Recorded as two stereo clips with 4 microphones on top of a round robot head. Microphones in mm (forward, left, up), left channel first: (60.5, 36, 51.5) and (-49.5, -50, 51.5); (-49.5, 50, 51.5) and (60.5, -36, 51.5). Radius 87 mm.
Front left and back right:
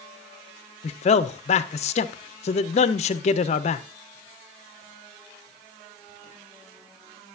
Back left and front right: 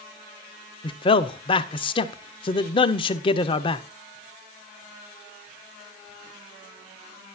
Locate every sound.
0.8 s a man speaking: 85° left, 0.5 m